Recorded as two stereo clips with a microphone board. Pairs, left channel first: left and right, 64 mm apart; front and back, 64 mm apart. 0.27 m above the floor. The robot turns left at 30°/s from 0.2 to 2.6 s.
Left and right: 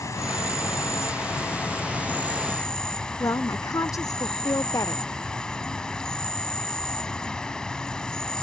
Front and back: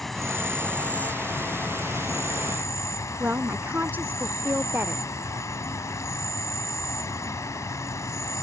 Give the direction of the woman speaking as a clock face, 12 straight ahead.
8 o'clock.